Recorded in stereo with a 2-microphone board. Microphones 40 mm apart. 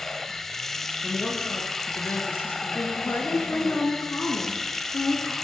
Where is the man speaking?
65° left (ahead or behind), 6.5 m.